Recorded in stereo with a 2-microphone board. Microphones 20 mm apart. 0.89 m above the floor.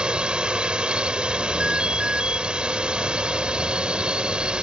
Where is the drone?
55° right (ahead or behind).